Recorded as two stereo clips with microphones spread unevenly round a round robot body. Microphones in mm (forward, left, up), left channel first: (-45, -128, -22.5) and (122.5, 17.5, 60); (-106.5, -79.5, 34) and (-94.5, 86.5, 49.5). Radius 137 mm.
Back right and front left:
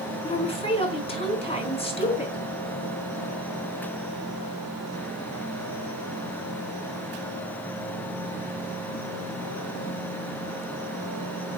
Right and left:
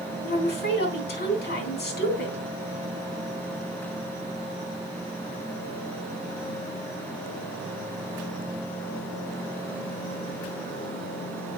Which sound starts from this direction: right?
A woman speaking, at 0.2 s.